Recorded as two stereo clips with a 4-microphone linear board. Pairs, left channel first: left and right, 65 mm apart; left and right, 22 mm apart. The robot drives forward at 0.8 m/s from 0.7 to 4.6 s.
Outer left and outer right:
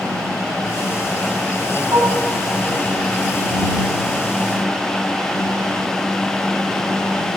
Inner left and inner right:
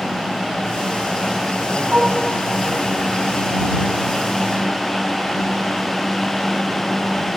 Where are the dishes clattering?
70° right (ahead or behind), 2 m; by 2.3 s 65° right (ahead or behind), 2 m.